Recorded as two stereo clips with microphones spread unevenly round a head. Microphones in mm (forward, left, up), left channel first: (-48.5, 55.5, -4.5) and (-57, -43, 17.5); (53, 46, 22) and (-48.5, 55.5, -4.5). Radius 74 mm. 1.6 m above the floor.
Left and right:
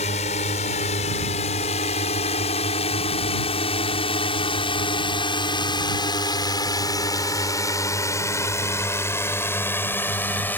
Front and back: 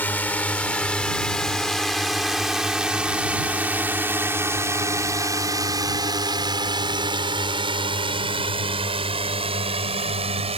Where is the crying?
No crying in this recording.